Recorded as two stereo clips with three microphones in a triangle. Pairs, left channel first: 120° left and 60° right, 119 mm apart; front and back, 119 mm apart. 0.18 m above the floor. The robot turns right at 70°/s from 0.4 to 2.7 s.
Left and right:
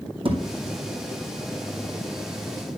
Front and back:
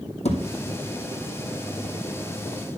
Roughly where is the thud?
Ahead.